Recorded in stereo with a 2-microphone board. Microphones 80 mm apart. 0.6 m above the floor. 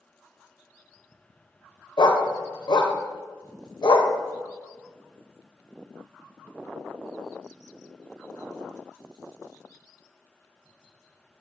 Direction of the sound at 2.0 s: 75° left (ahead or behind).